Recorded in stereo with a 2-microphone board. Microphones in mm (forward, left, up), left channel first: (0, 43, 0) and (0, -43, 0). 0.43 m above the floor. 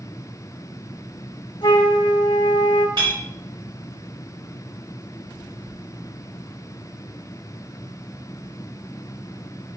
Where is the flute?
60° left (ahead or behind), 0.6 m.